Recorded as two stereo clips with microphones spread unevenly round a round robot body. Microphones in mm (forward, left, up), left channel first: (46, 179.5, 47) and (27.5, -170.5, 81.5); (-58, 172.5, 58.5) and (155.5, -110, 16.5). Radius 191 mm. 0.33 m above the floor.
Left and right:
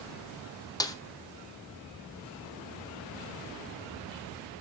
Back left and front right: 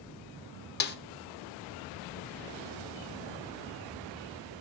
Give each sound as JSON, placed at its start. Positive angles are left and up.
{"t": 0.8, "sound": "a snare drum", "azimuth_deg": 125, "distance_m": 1.0}